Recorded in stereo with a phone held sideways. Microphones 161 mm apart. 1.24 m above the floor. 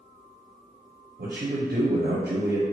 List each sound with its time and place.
1.2 s a man speaking: 75° right (ahead or behind), 0.6 m